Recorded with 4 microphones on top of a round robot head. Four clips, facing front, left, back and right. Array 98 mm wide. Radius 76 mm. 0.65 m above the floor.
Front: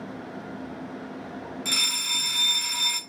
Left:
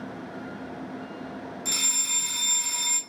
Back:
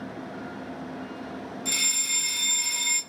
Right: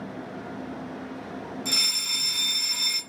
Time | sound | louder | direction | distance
1.6 | a fire alarm | right 2 dB, front 1 dB | 15° right | 2.5 m